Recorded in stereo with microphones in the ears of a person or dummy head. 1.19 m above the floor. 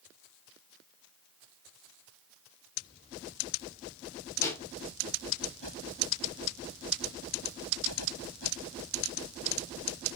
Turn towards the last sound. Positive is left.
turn(degrees=20)  # may be behind; listen again after turning